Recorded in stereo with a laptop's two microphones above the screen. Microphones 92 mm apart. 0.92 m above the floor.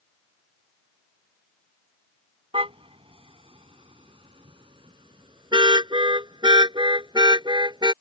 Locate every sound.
2.5 s a car horn: 85° right; by 7.9 s 50° right (ahead or behind)